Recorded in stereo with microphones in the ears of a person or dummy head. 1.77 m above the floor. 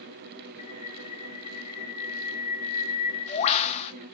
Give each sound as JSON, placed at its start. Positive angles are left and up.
{"t": 0.6, "sound": "a bird", "side_deg": 35, "distance_m": 1.3}